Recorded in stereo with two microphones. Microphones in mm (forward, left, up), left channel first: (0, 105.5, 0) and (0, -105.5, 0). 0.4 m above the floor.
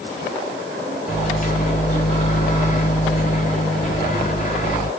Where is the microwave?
35° left (ahead or behind), 1.3 m.